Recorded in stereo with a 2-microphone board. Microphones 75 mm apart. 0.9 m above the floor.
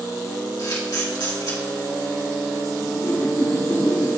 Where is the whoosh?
45° left (ahead or behind), 1.3 m.